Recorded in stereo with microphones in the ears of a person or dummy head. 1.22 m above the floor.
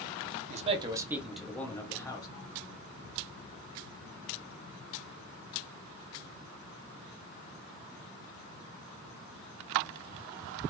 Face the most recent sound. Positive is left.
turn(degrees=25)  # may be behind; listen again after turning